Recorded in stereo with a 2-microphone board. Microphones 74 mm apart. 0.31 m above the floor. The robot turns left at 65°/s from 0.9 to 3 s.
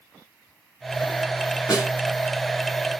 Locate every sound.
1.7 s a snare drum: 50° left (ahead or behind), 1.3 m; by 1.9 s 45° left (ahead or behind), 1.3 m